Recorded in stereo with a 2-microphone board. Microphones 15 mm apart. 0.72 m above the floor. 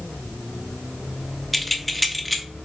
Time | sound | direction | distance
1.5 | keys jangling | 15° left (ahead or behind) | 0.7 m